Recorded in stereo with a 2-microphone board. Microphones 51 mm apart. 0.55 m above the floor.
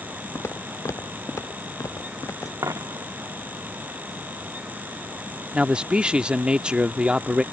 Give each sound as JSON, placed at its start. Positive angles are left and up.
{"t": 0.3, "sound": "footsteps", "side_deg": 60}
{"t": 2.6, "sound": "a dropped coin", "side_deg": -80}
{"t": 5.5, "sound": "a man speaking", "side_deg": -20}